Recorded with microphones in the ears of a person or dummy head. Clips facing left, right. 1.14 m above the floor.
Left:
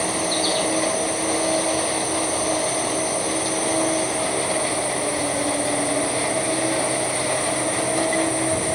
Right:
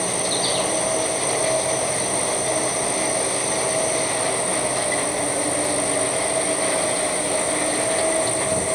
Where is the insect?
55° right (ahead or behind), 4 m.